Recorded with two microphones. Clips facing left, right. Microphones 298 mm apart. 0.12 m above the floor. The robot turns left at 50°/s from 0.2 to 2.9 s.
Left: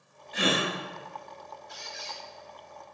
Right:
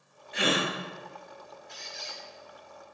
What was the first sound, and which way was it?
A gasp, 40° left (ahead or behind).